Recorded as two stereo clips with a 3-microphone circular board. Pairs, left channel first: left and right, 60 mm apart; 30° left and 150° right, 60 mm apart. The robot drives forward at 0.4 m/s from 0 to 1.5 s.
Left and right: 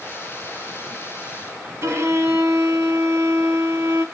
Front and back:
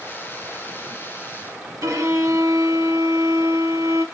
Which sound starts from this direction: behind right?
A violin, at 1.8 s.